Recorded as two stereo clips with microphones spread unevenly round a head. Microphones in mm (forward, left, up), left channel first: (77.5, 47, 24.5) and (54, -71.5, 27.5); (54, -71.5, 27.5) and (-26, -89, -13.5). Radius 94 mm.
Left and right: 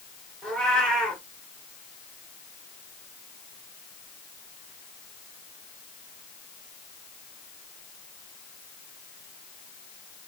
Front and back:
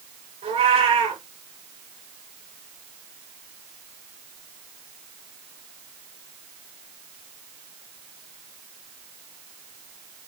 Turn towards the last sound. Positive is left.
turn(degrees=165)